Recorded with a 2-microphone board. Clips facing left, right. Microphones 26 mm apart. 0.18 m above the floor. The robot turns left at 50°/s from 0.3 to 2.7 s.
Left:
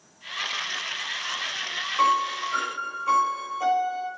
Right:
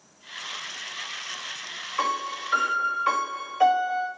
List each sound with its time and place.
2.0 s a piano: 20° right, 5 m; by 4.1 s 55° right, 5 m